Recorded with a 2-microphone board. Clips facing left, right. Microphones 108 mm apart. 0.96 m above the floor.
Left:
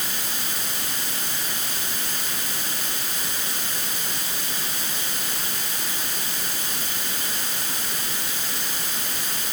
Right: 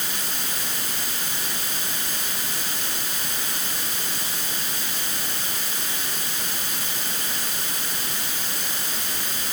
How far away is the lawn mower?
I don't hear a lawn mower.